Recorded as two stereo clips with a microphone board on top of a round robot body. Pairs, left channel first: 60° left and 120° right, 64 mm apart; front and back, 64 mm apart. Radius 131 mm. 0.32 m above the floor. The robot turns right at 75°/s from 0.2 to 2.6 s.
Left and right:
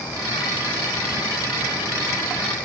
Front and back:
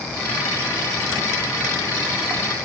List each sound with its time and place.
Only background noise.